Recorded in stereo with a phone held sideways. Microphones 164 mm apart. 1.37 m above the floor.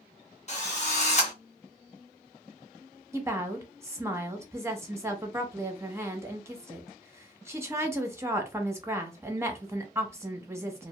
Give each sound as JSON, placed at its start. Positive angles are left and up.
{"t": 0.5, "sound": "a drill", "side_deg": 45, "distance_m": 0.9}
{"t": 3.1, "sound": "a woman speaking", "side_deg": -15, "distance_m": 0.7}